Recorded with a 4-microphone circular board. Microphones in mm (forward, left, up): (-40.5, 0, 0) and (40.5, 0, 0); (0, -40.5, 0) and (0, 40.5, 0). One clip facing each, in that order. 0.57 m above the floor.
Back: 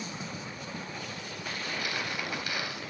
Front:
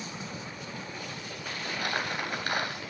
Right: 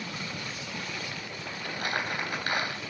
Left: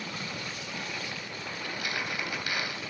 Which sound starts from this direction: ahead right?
Crumpling, at 1.6 s.